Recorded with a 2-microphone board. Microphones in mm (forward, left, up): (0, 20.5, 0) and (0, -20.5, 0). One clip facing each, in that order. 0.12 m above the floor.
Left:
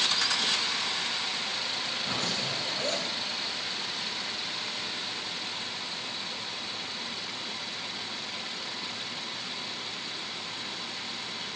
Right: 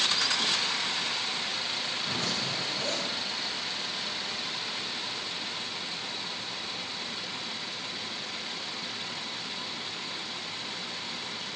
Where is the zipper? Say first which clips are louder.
Left 1 dB; 65° left (ahead or behind), 3 m.